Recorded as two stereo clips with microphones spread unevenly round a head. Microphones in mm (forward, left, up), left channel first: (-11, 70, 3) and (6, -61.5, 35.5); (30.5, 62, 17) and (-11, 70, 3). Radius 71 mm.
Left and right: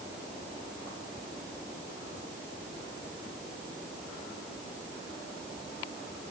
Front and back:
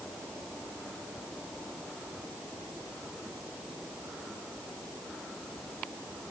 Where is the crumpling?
No crumpling in this recording.